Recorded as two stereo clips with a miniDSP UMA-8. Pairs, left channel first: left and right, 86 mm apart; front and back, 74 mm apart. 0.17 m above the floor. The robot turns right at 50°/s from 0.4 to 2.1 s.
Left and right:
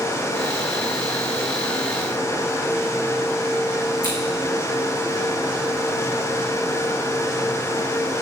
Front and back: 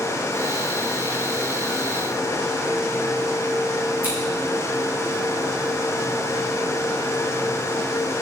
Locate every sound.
4.0 s scissors: 110° right, 3 m